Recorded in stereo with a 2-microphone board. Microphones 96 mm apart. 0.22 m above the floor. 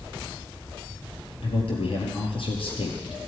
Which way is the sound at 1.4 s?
70° left (ahead or behind).